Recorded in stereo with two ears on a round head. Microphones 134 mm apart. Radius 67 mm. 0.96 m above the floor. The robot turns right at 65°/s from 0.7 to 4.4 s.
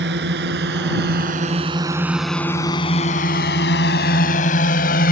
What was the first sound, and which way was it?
A drone, 85° right.